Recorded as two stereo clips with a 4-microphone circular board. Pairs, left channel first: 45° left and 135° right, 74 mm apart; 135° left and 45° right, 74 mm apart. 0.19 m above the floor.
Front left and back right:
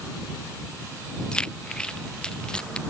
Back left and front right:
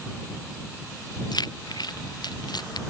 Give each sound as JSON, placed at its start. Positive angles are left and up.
{"t": 1.3, "sound": "keys jangling", "azimuth_deg": 125}